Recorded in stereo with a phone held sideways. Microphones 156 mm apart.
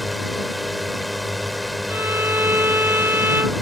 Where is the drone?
Centre (ahead or behind).